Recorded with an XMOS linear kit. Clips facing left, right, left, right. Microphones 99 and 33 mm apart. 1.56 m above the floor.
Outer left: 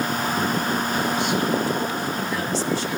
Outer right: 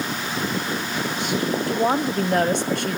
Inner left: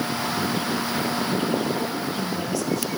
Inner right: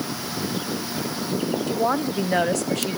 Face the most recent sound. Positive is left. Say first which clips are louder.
# outer right 4 dB, inner right 4 dB
turn(degrees=-60)  # may be behind; listen again after turning